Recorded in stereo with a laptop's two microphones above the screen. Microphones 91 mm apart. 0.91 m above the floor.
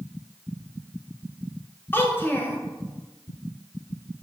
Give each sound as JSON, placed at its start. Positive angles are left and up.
{"t": 1.9, "sound": "a child speaking", "side_deg": 25, "distance_m": 0.5}